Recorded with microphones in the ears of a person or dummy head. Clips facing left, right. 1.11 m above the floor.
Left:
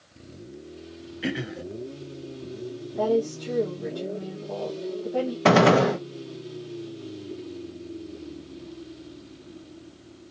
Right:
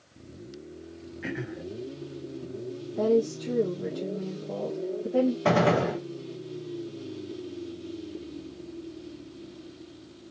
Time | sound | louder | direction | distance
1.2 | throat clearing | left 5 dB | 45° left (ahead or behind) | 0.8 m
3.0 | a woman speaking | even | 20° right (ahead or behind) | 1.3 m
5.5 | a gunshot | left 5 dB | 75° left (ahead or behind) | 0.7 m